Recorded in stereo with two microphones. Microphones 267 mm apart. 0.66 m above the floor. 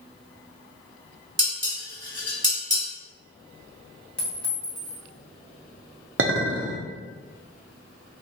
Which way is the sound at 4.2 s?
5° left (ahead or behind).